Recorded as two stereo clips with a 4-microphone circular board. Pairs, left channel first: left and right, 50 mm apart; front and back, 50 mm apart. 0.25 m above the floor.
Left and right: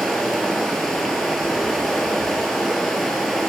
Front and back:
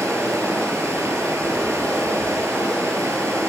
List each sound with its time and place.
0.0 s running water: straight behind, 4.5 m